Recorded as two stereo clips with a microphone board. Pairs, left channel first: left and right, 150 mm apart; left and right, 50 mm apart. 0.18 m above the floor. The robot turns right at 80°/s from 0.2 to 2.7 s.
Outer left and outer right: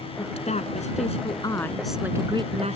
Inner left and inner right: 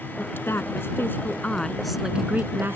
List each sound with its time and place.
0.2 s a woman speaking: 45° left; by 2.8 s 115° right